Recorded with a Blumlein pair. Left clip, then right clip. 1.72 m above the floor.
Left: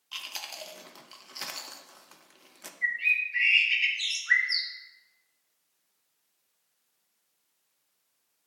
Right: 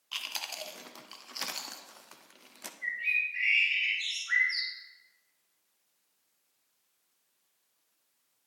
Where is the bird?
55° left, 1.5 m.